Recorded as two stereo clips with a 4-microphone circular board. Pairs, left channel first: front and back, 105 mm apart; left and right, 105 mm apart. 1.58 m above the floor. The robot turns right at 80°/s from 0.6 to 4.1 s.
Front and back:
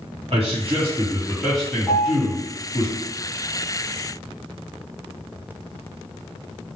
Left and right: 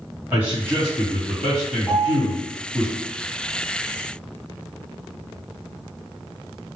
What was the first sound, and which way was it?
A man speaking, 165° right.